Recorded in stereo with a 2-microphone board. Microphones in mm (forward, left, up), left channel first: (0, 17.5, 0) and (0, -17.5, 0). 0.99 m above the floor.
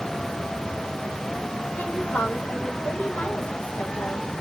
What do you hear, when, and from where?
1.8 s a woman speaking: 60° left (ahead or behind), 1.6 m